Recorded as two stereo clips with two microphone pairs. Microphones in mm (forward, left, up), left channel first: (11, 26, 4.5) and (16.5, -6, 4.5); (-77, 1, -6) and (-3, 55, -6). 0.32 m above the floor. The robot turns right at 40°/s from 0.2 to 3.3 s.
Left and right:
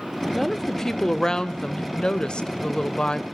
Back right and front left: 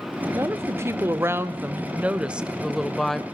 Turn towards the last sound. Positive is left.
turn(degrees=140)